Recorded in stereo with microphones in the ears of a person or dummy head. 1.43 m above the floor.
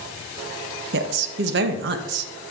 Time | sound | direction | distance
0.9 | a woman speaking | 65° right (ahead or behind) | 1.5 m